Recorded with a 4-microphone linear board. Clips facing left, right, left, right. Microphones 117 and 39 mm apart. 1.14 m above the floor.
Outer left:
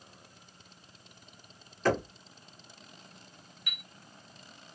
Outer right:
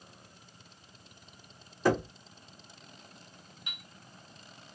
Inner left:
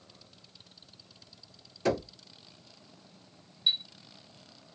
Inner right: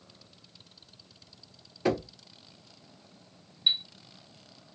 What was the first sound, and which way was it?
Knocking, 15° right (ahead or behind).